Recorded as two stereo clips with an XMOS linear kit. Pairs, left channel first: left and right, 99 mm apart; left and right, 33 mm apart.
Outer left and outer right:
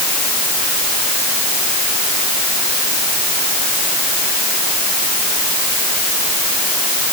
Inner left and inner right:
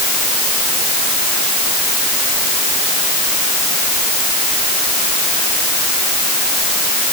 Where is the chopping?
No chopping in this recording.